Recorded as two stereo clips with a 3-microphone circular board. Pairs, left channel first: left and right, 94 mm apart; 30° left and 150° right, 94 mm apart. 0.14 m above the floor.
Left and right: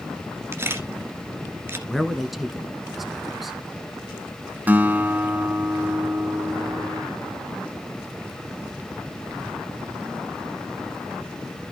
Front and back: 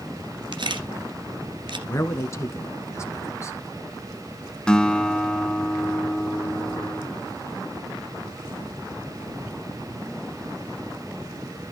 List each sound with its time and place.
0.5 s a camera shutter: 150° right, 1.7 m
1.9 s a man speaking: straight ahead, 1.4 m
4.7 s a guitar: 40° right, 0.8 m